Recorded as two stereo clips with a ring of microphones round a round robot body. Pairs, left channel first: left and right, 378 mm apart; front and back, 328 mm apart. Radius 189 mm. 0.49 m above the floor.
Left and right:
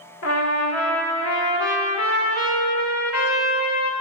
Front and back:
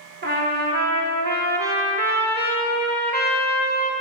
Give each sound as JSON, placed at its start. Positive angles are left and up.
{"t": 0.2, "sound": "a trumpet", "azimuth_deg": 130, "distance_m": 1.5}